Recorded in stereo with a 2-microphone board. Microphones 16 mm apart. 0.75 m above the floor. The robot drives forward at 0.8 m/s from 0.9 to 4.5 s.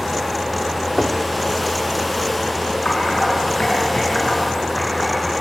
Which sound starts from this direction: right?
Knocking, at 1.0 s.